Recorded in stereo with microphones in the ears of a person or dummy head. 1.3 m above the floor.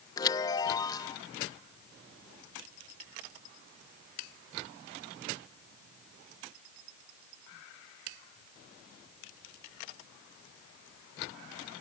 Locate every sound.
0.2 s a chime: 25° left (ahead or behind)